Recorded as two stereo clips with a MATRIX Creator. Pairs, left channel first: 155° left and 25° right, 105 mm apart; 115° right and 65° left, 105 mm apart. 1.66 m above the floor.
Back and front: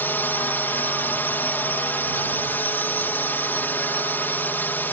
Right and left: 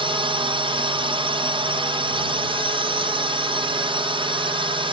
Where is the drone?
90° left.